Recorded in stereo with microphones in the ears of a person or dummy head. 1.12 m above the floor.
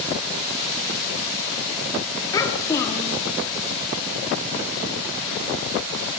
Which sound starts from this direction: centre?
A child speaking, at 2.3 s.